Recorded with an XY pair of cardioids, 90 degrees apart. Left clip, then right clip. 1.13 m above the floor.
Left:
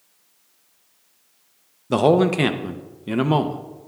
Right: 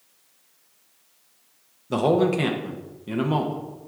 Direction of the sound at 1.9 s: 45° left.